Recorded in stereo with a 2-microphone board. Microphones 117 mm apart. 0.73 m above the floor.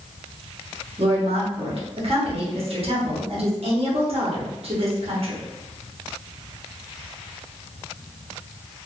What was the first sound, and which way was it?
A woman speaking, 55° right (ahead or behind).